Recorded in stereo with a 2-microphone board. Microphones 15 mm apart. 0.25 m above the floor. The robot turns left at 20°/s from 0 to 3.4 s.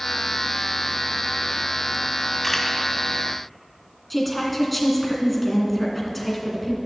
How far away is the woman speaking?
About 2 m.